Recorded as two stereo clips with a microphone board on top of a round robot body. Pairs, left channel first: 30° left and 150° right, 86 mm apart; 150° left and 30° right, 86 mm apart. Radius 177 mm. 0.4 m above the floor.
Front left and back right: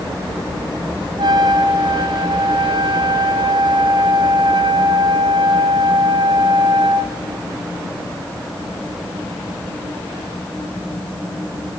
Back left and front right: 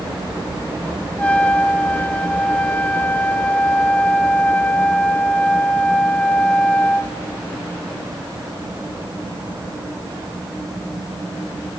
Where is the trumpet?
135° right, 1.6 m.